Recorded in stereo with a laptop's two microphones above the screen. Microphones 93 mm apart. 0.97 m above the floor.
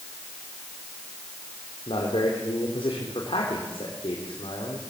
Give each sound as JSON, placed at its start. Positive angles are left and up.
{"t": 1.9, "sound": "a man speaking", "side_deg": 75, "distance_m": 3.5}